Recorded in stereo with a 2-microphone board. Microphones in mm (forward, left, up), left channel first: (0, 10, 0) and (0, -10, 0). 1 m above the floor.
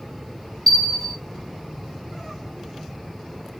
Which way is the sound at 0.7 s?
5° left (ahead or behind).